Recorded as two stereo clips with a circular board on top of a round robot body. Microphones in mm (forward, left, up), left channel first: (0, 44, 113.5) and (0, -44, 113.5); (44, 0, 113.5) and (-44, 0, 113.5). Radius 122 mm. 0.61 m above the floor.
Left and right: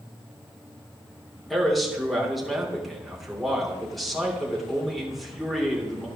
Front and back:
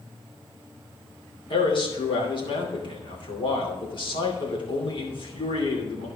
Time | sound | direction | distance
1.5 | a man speaking | straight ahead | 3 m